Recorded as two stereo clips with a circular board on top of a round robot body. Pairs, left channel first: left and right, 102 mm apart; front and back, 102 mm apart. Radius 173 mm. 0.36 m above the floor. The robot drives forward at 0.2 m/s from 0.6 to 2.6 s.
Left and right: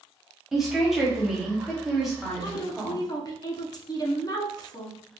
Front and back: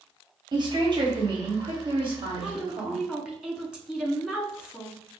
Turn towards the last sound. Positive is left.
turn(degrees=100)